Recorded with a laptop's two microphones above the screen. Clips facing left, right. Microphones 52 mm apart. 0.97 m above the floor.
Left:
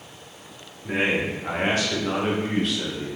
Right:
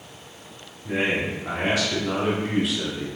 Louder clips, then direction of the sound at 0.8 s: Left 1 dB; 65° left (ahead or behind).